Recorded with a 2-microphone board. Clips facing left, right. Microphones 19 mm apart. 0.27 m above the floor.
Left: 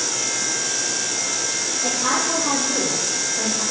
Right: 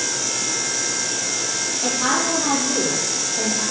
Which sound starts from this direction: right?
A woman speaking, at 1.8 s.